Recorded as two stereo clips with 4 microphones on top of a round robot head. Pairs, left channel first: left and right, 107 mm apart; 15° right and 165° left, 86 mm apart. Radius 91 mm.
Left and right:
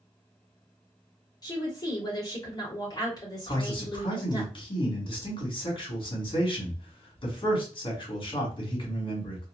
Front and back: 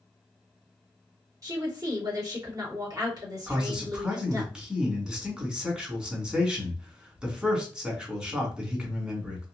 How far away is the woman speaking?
About 2 m.